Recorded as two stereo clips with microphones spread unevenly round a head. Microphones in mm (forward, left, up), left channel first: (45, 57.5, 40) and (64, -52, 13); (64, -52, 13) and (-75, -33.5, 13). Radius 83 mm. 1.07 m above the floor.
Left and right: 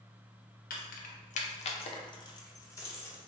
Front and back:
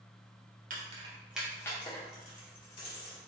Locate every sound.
0.7 s keys jangling: 125° left, 0.5 m; by 3.2 s 30° left, 1.1 m